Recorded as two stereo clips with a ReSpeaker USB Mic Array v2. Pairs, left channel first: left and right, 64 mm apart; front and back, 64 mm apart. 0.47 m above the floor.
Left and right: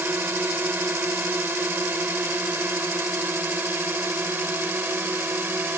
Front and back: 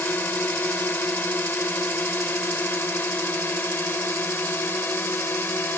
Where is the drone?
50° right; by 5.8 s 45° right.